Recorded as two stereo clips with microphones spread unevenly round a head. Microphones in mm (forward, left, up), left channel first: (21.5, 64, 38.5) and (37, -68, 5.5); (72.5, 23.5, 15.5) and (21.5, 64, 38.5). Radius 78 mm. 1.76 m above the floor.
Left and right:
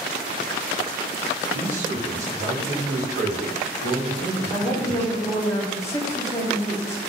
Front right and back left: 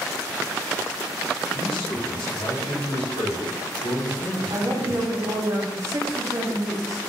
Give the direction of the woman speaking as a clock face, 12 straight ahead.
7 o'clock.